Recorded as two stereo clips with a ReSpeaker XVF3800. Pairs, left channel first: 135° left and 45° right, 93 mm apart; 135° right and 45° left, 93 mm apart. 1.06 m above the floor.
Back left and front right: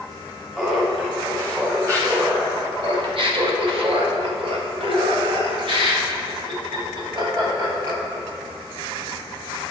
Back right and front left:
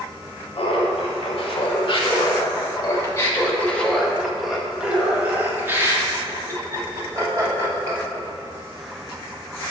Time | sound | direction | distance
0.6 | laughter | 115° right | 2 m